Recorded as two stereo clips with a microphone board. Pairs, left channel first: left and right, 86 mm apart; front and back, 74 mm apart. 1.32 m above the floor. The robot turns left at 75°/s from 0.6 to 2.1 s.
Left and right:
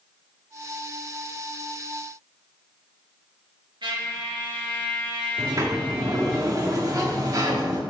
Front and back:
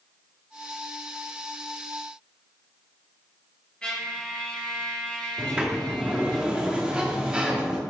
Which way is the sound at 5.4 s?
110° right.